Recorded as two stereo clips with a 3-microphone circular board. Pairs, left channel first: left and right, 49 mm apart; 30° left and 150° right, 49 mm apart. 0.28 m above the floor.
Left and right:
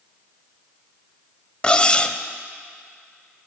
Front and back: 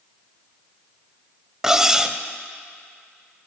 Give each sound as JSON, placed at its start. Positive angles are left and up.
{"t": 1.6, "sound": "cutlery clinking", "azimuth_deg": 140, "distance_m": 0.6}